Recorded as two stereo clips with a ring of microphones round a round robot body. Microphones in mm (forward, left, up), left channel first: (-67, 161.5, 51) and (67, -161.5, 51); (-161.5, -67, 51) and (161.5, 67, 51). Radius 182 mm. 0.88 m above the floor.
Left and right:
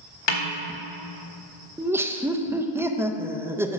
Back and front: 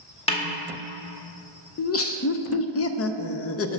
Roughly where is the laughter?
Behind right.